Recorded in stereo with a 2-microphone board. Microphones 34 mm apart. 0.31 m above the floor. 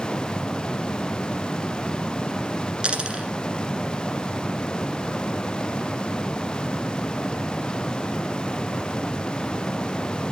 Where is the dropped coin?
30° right (ahead or behind), 1.5 m.